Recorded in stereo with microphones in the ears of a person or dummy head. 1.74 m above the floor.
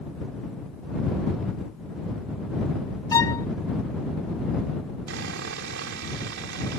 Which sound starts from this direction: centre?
A violin, at 3.1 s.